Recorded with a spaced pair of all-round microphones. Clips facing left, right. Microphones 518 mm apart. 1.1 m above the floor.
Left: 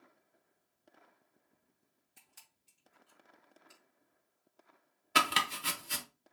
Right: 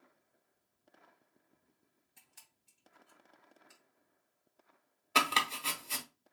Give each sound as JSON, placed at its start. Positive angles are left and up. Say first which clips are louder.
{"t": 2.2, "sound": "a camera shutter", "louder": "left 1 dB", "side_deg": 30, "distance_m": 2.5}
{"t": 5.2, "sound": "chopping", "louder": "even", "side_deg": 35, "distance_m": 0.8}